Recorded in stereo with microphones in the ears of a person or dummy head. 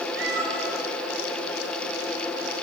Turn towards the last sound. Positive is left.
turn(degrees=-75)  # may be behind; listen again after turning